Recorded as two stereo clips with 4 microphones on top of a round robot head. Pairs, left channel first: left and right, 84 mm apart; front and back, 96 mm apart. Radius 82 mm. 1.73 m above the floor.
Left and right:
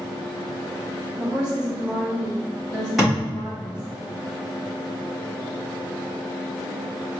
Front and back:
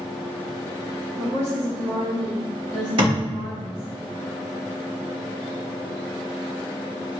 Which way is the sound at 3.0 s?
175° right.